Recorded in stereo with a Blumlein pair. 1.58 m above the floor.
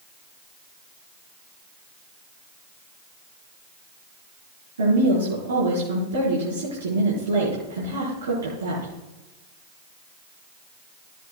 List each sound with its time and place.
4.8 s a woman speaking: 70° right, 5 m